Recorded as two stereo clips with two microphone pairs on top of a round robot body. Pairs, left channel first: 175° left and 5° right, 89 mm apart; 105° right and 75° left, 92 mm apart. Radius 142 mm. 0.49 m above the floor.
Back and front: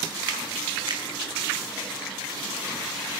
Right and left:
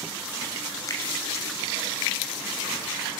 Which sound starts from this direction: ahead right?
A finger snap, at 0.9 s.